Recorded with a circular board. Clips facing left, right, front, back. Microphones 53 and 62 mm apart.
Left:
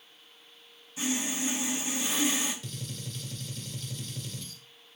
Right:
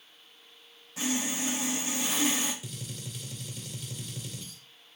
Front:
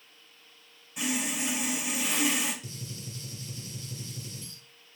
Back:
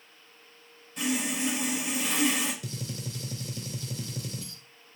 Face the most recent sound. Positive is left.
turn(degrees=-175)